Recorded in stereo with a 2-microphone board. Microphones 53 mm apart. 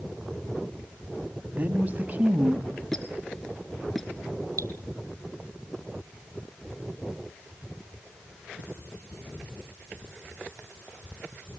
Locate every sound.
1.5 s a woman speaking: 40° right (ahead or behind), 1.8 m; by 2.8 s 15° right (ahead or behind), 1.2 m
2.9 s a squeak: 5° left (ahead or behind), 2.0 m
4.6 s dripping: 80° right, 1.4 m